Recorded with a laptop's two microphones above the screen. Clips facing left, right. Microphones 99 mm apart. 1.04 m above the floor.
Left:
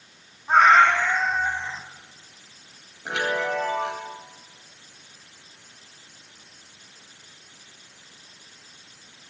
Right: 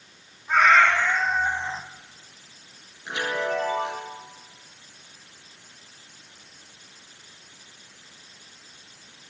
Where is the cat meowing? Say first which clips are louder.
Left 3 dB; 35° left (ahead or behind), 1.5 m; by 1.8 s 35° right (ahead or behind), 1.0 m.